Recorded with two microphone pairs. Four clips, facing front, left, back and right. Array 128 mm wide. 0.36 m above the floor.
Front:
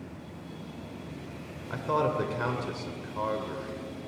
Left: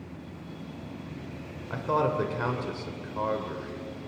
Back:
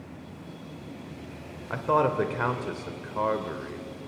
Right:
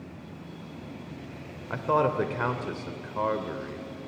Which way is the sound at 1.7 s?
150° right.